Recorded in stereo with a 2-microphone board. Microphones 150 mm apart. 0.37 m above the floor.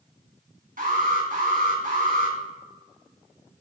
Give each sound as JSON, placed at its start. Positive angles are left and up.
{"t": 0.8, "sound": "an alarm", "side_deg": -70, "distance_m": 3.0}